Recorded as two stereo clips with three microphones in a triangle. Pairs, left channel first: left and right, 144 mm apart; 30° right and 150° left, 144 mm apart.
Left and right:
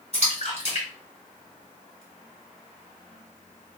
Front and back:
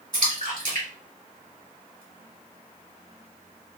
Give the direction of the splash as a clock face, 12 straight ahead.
8 o'clock.